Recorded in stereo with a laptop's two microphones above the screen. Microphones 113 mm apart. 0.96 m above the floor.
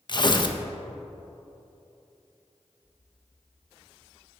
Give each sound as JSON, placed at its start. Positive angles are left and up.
{"t": 0.1, "sound": "tearing paper", "side_deg": 45, "distance_m": 0.5}